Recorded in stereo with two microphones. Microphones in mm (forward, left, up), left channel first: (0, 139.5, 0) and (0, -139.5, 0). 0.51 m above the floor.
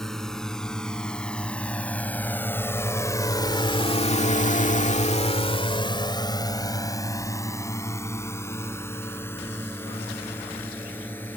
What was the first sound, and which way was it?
A drone, centre (ahead or behind).